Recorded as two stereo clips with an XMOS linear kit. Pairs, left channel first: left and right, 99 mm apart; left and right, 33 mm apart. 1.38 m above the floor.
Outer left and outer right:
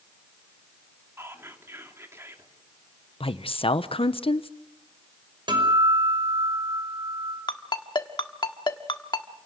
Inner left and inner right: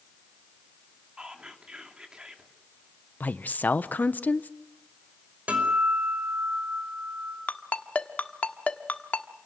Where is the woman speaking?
75° left (ahead or behind), 0.9 m.